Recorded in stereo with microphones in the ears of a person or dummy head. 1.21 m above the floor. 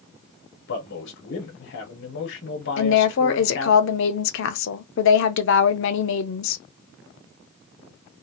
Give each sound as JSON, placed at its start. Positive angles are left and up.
{"t": 0.7, "sound": "a man speaking", "side_deg": 65, "distance_m": 1.1}
{"t": 2.8, "sound": "a woman speaking", "side_deg": 65, "distance_m": 0.5}